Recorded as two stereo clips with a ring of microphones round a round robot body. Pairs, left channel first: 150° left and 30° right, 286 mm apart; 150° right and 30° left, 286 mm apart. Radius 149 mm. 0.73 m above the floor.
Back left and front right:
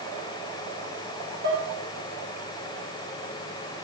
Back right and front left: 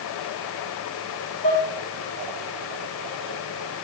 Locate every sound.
1.4 s dishes clattering: 90° right, 1.5 m